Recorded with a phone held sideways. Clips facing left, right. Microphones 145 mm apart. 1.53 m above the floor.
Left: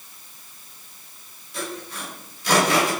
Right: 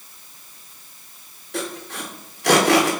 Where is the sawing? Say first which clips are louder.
Right 3 dB; 80° right, 3 m.